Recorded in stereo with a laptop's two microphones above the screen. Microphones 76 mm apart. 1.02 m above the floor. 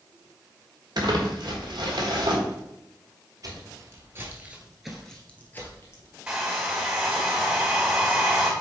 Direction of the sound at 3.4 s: 50° right (ahead or behind).